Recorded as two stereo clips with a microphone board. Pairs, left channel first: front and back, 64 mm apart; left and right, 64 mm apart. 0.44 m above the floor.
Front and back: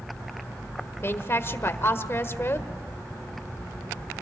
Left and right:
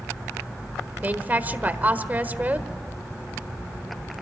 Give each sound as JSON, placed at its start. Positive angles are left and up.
{"t": 1.0, "sound": "a woman speaking", "azimuth_deg": -35, "distance_m": 1.4}